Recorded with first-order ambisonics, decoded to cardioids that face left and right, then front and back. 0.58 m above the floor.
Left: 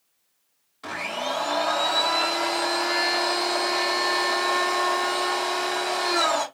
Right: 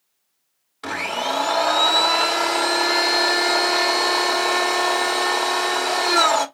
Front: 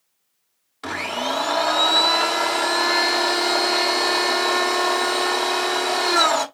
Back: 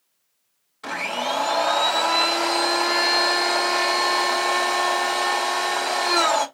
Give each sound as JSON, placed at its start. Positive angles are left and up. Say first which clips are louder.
{"t": 0.8, "sound": "a blender", "louder": "right 5 dB, even", "azimuth_deg": -50, "distance_m": 1.1}